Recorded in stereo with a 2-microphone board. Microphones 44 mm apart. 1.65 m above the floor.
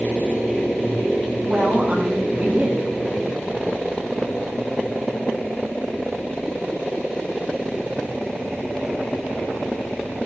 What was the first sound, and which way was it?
A woman speaking, 35° right (ahead or behind).